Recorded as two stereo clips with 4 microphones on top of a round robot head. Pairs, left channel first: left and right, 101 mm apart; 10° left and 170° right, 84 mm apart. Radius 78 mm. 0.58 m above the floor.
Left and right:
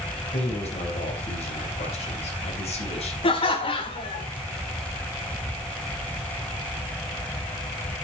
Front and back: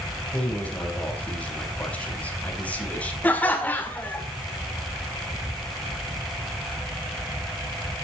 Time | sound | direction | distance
0.3 | a man speaking | 85° left | 4 m
3.2 | laughter | 80° left | 1.4 m